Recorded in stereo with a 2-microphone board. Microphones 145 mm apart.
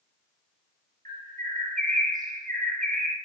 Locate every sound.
1.1 s a bird: 70° right (ahead or behind), 2.5 m